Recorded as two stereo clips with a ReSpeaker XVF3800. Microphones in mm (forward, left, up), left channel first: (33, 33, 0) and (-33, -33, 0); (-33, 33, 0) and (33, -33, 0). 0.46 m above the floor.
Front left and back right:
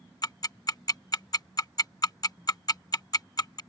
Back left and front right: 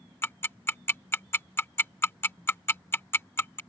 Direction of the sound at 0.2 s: 75° left.